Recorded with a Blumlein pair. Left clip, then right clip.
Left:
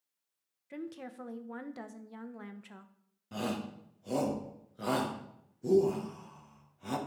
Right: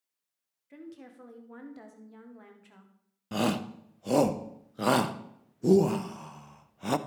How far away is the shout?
About 0.8 m.